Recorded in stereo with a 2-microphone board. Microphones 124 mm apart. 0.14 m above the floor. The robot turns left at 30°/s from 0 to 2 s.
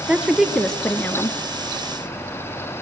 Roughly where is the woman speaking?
Behind.